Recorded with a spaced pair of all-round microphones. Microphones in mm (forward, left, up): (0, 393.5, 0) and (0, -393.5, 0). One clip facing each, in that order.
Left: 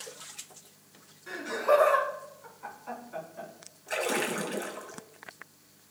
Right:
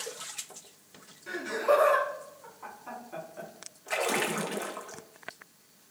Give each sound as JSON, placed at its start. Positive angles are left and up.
{"t": 1.3, "sound": "laughter", "side_deg": -50, "distance_m": 5.5}
{"t": 3.9, "sound": "a splash", "side_deg": -35, "distance_m": 1.2}